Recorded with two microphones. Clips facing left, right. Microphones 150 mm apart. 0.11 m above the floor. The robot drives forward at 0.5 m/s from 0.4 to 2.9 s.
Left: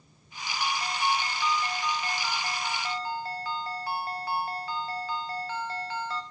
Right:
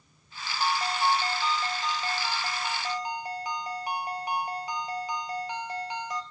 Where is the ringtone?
30° right (ahead or behind), 0.7 m; by 6.2 s 15° right (ahead or behind), 1.2 m.